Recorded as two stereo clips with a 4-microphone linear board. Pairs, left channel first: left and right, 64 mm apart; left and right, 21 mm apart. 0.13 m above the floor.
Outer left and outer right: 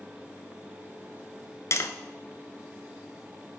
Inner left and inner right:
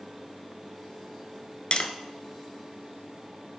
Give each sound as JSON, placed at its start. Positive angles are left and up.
{"t": 1.7, "sound": "tapping", "side_deg": 50, "distance_m": 0.6}